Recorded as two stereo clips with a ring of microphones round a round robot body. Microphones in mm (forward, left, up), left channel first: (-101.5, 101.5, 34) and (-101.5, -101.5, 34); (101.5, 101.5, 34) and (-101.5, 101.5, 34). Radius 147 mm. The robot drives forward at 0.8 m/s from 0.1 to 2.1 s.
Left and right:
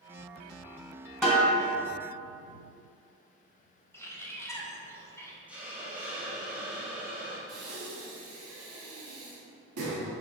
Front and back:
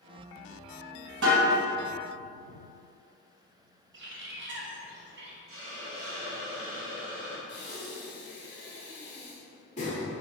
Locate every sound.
1.2 s a snare drum: straight behind, 1.9 m
3.9 s a bird: 170° left, 0.8 m
5.5 s a hiss: 175° right, 1.2 m
7.5 s breathing: 70° right, 0.9 m